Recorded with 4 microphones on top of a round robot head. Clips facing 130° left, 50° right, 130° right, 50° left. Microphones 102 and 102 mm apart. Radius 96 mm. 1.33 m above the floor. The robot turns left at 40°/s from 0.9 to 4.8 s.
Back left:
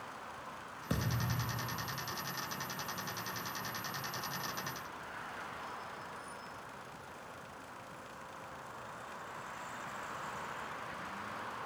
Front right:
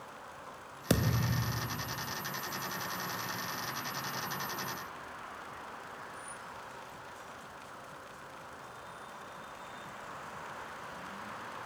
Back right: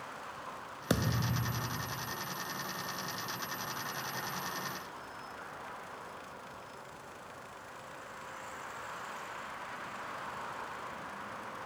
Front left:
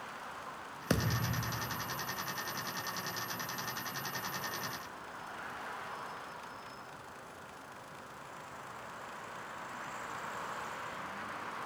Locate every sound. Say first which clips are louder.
0.9 s a thud: front right 7 dB, back right 1 dB; 55° right, 0.8 m; by 2.2 s 105° right, 0.8 m